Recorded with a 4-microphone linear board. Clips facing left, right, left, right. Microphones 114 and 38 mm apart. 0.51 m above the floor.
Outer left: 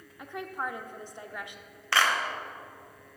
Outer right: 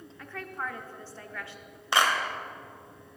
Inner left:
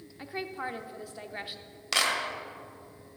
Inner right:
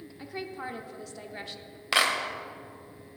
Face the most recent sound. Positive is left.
turn(degrees=-20)  # may be behind; listen again after turning